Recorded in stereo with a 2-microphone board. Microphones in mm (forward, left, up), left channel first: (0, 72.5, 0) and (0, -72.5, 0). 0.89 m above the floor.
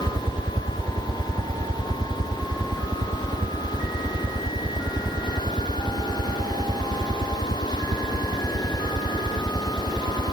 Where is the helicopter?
35° right (ahead or behind); by 10.3 s 70° right (ahead or behind).